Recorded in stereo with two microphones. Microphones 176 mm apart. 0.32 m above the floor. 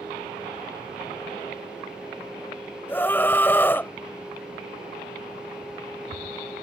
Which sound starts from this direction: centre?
A scream, at 2.9 s.